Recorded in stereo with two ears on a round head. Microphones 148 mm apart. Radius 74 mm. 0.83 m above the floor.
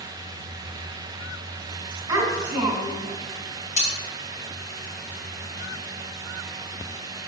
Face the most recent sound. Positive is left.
turn(degrees=50)  # may be behind; listen again after turning